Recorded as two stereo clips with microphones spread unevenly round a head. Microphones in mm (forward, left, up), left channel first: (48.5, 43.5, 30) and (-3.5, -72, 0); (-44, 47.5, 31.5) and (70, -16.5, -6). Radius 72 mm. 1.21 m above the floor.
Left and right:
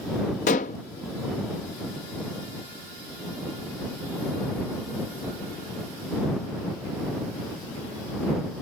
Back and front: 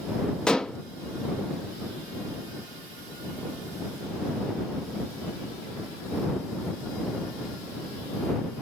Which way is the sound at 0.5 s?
75° left.